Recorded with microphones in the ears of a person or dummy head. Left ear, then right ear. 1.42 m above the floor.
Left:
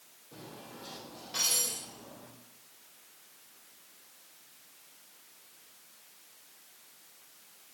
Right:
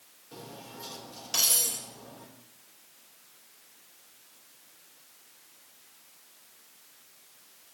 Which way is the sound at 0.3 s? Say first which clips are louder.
Right 3 dB; 65° right (ahead or behind).